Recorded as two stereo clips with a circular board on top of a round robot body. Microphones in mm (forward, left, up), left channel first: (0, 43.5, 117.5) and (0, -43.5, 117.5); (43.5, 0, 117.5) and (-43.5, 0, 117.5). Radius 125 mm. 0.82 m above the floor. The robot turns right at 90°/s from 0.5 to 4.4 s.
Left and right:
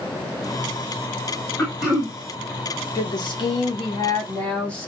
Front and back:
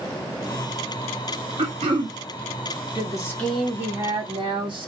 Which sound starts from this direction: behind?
Throat clearing, at 1.6 s.